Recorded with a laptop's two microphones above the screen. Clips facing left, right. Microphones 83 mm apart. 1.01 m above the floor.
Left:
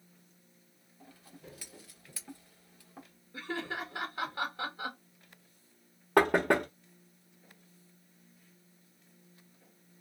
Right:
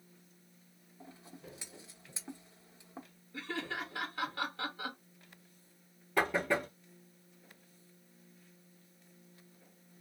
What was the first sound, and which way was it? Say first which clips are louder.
Scissors: right 1 dB; 20° right (ahead or behind).